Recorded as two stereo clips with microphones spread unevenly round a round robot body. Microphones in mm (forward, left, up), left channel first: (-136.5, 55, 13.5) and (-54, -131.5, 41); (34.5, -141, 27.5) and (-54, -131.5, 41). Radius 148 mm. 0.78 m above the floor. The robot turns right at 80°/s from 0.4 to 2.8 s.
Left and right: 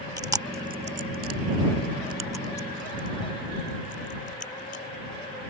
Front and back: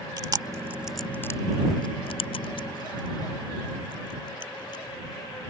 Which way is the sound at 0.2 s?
140° right.